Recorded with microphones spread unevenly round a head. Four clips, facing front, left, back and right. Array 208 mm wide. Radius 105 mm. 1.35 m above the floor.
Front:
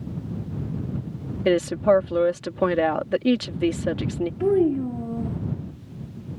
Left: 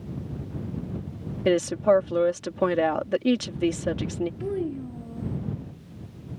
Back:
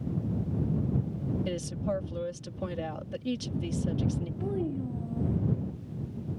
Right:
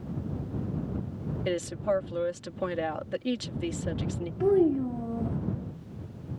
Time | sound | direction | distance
1.4 | a woman speaking | 35° left | ?
4.4 | a child speaking | 25° right | ?